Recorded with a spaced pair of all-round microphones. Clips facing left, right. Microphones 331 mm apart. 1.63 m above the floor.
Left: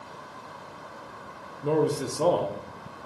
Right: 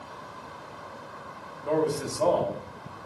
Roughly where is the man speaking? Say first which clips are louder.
Left 2 dB; left.